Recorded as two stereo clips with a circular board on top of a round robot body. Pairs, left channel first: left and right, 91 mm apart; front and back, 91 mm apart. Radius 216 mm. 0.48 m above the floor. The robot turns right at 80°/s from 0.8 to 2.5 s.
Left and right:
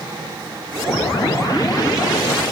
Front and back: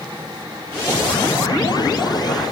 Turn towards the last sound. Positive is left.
No sound to turn to.